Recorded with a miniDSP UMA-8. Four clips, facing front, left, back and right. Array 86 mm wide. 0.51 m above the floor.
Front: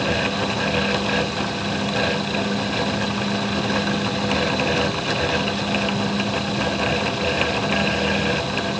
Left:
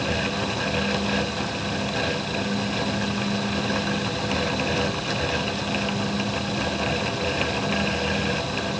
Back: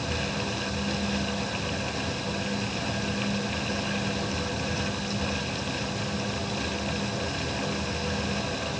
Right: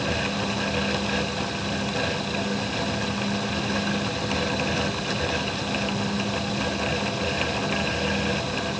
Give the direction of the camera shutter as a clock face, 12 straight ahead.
I don't hear a camera shutter.